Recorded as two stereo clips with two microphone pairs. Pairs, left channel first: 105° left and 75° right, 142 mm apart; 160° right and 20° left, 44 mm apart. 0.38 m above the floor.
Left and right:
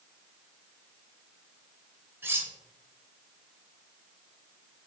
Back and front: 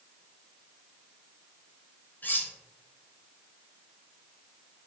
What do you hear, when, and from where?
2.2 s cutlery clinking: 145° right, 0.6 m